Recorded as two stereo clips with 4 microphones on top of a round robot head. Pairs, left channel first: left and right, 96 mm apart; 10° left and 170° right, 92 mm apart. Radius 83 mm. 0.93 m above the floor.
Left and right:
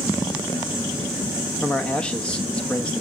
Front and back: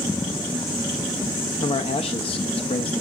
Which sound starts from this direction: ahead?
A man speaking, at 1.6 s.